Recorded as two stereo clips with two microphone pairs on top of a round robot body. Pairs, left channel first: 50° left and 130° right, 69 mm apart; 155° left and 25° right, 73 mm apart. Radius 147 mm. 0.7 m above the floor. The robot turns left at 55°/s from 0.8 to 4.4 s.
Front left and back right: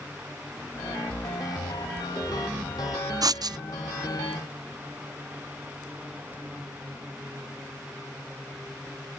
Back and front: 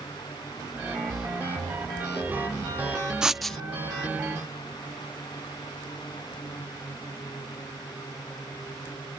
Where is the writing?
105° right; by 3.6 s 130° right.